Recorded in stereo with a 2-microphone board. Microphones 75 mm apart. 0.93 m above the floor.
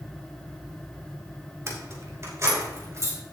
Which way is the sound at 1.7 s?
40° right (ahead or behind).